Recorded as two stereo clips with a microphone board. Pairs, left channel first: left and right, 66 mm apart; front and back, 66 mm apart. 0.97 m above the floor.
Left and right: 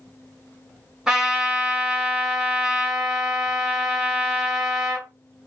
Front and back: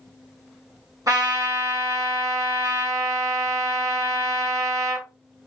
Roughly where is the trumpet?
Behind.